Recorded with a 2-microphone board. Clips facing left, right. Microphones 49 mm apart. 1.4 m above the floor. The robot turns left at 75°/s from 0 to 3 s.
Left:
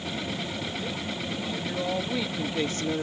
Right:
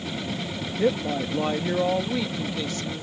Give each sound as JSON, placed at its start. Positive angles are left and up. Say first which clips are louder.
{"t": 0.8, "sound": "a woman speaking", "louder": "right 9 dB", "azimuth_deg": -75}